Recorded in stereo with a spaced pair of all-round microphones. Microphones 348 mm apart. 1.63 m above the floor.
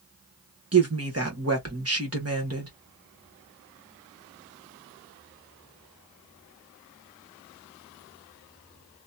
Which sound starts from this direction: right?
A woman speaking, at 0.7 s.